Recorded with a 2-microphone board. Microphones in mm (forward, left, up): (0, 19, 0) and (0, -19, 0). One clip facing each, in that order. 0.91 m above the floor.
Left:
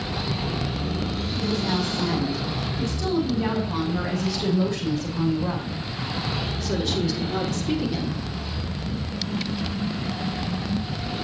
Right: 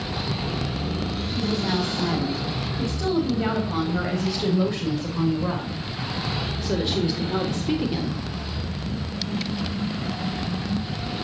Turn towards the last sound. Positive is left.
turn(degrees=-20)  # may be behind; listen again after turning